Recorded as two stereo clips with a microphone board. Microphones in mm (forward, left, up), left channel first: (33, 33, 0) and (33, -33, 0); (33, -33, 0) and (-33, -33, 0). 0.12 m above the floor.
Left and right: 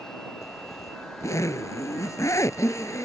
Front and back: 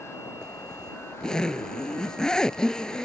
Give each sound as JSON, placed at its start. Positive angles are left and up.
{"t": 0.4, "sound": "a zipper", "azimuth_deg": 80}